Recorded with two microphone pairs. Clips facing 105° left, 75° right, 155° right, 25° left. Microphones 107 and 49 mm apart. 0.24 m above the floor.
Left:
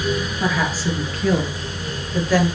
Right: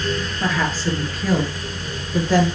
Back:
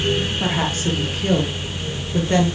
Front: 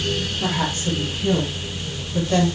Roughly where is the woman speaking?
Behind.